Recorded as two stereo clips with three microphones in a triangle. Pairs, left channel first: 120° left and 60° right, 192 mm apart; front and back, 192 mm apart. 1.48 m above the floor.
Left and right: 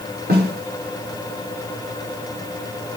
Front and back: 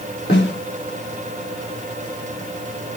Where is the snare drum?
25° right, 5 m.